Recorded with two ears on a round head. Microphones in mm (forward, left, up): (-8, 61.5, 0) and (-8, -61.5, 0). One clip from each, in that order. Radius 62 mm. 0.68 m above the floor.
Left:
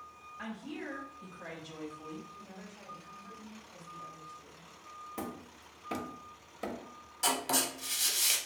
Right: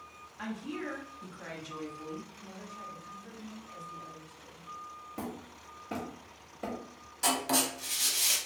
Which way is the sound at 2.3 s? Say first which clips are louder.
Right 4 dB; 5° left (ahead or behind).